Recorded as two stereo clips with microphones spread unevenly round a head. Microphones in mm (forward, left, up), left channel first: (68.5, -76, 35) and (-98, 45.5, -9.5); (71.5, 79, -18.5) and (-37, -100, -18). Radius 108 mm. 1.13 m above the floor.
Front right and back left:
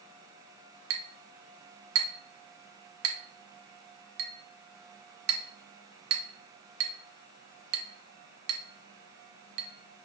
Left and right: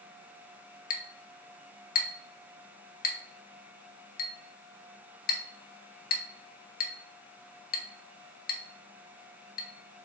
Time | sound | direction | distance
0.9 | a clink | 110° left | 0.6 m